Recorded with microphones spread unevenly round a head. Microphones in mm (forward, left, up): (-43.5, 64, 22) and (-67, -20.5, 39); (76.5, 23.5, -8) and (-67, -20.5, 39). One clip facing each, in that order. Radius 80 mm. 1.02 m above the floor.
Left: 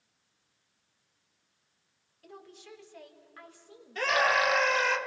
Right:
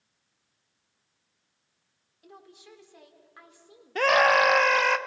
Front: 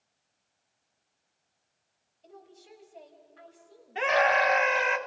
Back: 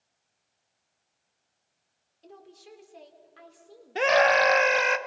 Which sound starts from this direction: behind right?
A scream, at 4.0 s.